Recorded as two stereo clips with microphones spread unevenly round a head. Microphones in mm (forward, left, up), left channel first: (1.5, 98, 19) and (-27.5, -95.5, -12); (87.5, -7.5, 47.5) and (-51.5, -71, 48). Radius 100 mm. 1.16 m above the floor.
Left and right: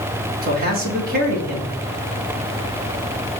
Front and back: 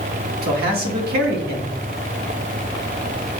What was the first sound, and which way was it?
A man speaking, 140° right.